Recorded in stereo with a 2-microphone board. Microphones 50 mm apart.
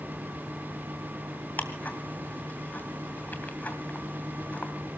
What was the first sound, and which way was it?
Ticking, 35° left (ahead or behind).